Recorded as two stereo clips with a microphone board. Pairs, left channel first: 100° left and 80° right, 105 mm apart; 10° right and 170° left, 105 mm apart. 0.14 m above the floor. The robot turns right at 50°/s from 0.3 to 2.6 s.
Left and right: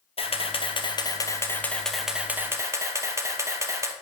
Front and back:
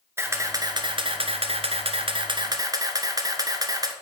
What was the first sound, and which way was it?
A camera shutter, 105° left.